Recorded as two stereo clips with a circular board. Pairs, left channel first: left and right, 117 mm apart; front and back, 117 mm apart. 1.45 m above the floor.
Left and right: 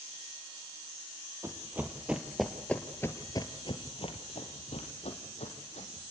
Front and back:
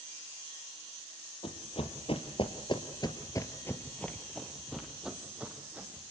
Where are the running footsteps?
25° right, 3 m; by 6.0 s 105° left, 4.5 m.